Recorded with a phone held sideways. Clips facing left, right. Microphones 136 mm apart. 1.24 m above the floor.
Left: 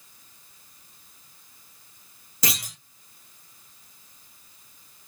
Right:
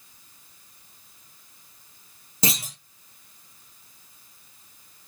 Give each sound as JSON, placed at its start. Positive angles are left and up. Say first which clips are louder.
{"t": 2.4, "sound": "a clunk", "louder": "right 4 dB", "side_deg": -25, "distance_m": 0.8}